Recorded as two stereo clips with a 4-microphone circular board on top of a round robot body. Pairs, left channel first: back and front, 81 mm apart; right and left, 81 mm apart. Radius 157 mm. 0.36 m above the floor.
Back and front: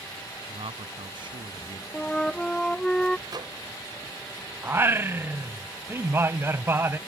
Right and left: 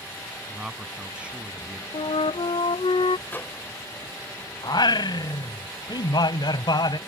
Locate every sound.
0.5 s a man speaking: 10° left; by 1.8 s 20° left
1.9 s a flute: 95° right
3.3 s a microwave: 25° right
4.6 s singing: 60° right